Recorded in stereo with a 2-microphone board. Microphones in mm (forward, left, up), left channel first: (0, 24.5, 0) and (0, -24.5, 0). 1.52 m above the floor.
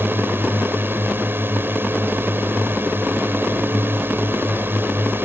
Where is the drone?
45° right (ahead or behind).